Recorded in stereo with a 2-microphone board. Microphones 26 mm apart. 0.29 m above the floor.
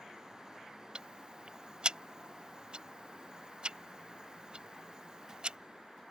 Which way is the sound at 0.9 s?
40° right (ahead or behind).